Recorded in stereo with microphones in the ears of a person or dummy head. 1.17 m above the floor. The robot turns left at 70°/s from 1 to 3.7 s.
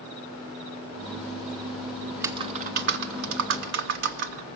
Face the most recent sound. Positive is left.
turn(degrees=-120)